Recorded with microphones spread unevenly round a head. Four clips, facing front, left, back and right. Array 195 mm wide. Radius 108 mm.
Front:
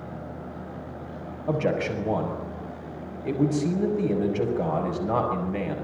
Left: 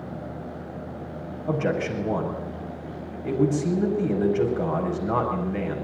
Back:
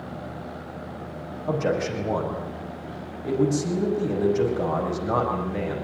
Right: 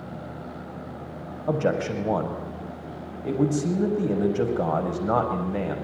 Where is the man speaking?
85° right, 6 m.